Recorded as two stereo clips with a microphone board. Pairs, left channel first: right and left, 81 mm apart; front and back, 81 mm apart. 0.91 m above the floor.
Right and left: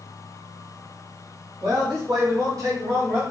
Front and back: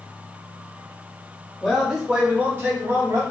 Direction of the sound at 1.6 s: 85° left.